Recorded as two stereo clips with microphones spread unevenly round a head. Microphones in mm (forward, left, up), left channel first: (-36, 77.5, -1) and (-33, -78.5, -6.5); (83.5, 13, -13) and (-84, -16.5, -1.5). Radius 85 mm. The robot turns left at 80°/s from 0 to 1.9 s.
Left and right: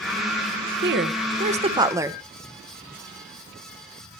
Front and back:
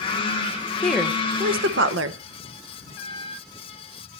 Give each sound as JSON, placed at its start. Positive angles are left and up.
{"t": 0.8, "sound": "a woman speaking", "azimuth_deg": -75, "distance_m": 1.0}